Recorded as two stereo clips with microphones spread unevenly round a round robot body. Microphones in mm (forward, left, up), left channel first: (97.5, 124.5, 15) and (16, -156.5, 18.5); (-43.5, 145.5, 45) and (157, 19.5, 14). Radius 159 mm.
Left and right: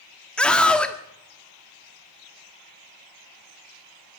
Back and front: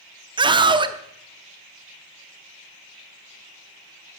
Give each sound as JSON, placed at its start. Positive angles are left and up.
{"t": 0.4, "sound": "a scream", "azimuth_deg": -10, "distance_m": 0.7}